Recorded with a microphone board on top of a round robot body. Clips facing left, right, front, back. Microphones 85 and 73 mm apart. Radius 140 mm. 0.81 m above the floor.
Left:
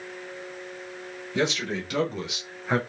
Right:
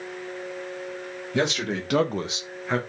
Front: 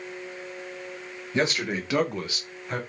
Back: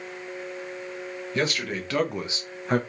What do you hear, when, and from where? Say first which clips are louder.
1.3 s a man speaking: right 1 dB, front 2 dB; 65° right, 1.8 m; by 2.8 s 165° left, 1.0 m